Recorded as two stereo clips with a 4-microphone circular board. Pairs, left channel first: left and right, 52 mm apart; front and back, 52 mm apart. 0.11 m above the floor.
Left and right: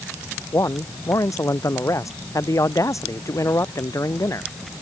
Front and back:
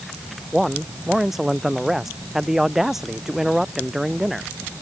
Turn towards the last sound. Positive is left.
turn(degrees=95)